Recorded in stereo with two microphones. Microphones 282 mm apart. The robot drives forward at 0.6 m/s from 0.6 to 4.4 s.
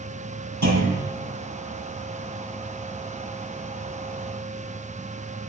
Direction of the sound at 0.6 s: 80° right.